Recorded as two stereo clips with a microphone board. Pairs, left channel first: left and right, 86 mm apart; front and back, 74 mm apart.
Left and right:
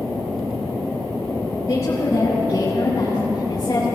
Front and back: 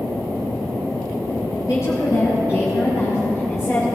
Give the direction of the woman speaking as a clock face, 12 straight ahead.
11 o'clock.